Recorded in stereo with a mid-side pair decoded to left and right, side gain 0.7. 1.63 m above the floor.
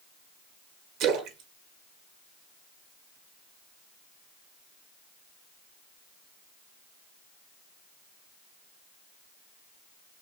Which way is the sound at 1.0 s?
60° right.